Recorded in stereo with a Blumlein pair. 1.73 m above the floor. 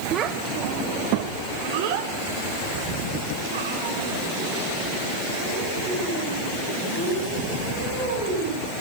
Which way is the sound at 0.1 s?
30° right.